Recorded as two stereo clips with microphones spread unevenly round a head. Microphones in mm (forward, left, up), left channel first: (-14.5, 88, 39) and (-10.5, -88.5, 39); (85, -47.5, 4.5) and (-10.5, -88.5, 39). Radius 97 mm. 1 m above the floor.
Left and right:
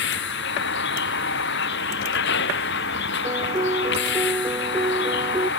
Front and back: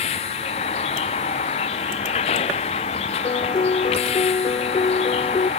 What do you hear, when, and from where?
0.0 s a vehicle: 65° left
3.2 s a piano: 15° right